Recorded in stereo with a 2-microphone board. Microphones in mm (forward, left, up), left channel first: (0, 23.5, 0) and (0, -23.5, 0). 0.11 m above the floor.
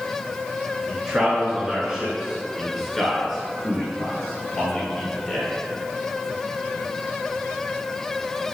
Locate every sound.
0.9 s a man speaking: 25° right (ahead or behind), 1.3 m; by 5.5 s 10° left (ahead or behind), 2 m